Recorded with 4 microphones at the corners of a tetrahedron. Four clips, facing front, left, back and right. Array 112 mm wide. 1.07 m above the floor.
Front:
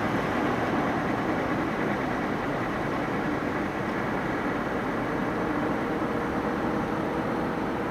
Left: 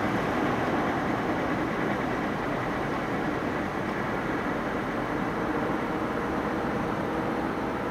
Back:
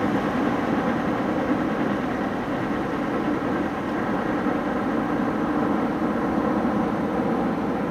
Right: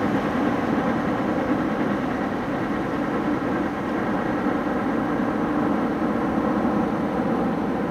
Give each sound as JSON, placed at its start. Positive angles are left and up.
{"t": 0.0, "sound": "a helicopter", "azimuth_deg": -130}